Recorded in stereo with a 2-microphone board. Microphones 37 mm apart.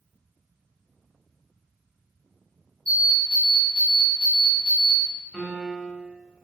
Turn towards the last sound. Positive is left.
turn(degrees=25)  # may be behind; listen again after turning